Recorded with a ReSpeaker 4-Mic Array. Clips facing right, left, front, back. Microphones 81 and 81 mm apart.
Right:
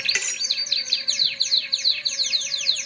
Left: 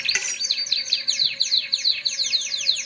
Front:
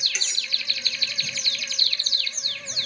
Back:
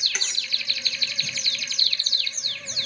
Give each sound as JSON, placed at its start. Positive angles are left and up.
{"t": 0.1, "sound": "cutlery clinking", "azimuth_deg": 170, "distance_m": 1.0}